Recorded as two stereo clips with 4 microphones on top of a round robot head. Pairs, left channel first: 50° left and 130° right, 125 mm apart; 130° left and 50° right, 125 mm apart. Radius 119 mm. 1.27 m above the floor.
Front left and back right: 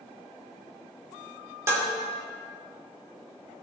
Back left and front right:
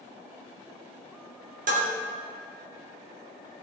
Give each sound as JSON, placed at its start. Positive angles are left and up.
{"t": 1.7, "sound": "dishes clattering", "azimuth_deg": -60, "distance_m": 3.0}